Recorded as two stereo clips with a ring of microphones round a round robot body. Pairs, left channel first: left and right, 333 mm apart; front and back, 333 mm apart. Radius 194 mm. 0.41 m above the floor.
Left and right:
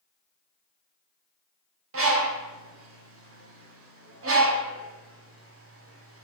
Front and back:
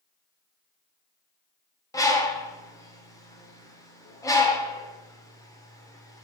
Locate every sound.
1.9 s a bird: 75° right, 1.5 m